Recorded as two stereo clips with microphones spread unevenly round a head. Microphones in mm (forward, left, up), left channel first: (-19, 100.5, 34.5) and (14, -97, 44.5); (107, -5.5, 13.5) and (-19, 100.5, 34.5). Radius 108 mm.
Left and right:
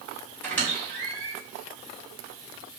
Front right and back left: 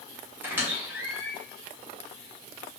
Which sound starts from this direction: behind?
A squeak, at 0.4 s.